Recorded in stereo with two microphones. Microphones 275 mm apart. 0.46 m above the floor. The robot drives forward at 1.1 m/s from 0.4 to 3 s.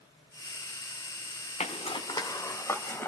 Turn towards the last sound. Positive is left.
turn(degrees=10)  # may be behind; listen again after turning